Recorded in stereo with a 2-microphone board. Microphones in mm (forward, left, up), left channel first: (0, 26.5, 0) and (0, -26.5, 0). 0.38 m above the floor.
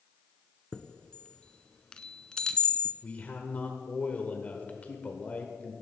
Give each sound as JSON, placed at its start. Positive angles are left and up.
{"t": 0.7, "sound": "a chime", "side_deg": 15, "distance_m": 0.6}
{"t": 3.0, "sound": "a man speaking", "side_deg": 30, "distance_m": 1.1}